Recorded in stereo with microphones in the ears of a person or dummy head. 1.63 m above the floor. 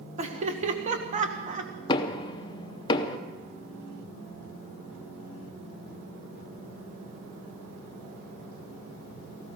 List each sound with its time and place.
0.2 s laughter: 40° right (ahead or behind), 1.7 m
1.9 s knocking: 25° left (ahead or behind), 0.9 m